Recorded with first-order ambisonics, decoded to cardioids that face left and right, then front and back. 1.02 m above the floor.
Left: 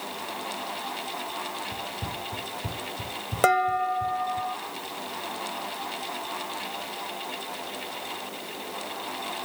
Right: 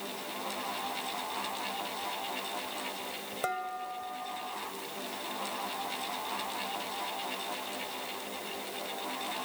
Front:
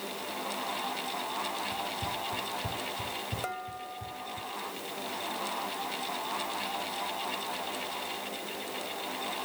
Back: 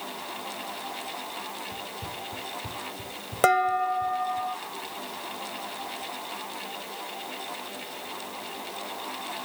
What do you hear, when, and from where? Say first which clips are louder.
1.7 s running footsteps: left 2 dB, front 2 dB; 90° left; by 4.4 s 70° left
3.4 s dishes clattering: left 14 dB, back 16 dB; 140° left